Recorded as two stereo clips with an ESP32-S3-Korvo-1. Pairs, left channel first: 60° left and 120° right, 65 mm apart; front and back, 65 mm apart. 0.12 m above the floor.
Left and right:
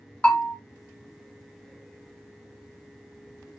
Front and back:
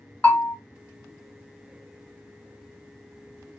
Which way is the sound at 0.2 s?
25° left.